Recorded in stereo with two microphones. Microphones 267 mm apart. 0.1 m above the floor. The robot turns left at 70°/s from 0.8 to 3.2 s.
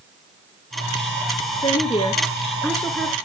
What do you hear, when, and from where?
1.6 s a woman speaking: 20° left (ahead or behind), 1.1 m; by 3.2 s centre (ahead or behind), 1.1 m